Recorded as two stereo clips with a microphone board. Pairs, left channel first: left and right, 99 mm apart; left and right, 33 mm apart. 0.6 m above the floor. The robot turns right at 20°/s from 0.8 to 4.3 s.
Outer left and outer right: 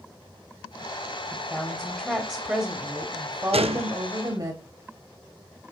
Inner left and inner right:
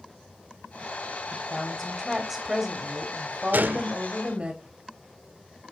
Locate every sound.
1.3 s a woman speaking: 170° left, 1.3 m; by 4.5 s 130° right, 1.3 m
3.5 s a gunshot: 85° right, 0.5 m; by 3.9 s 90° right, 0.5 m